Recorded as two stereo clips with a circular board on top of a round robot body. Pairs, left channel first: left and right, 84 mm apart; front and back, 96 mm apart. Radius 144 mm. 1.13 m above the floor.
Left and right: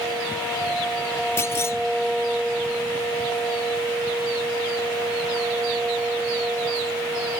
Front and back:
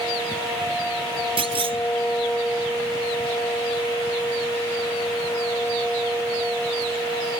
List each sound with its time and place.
1.4 s a clunk: 150° left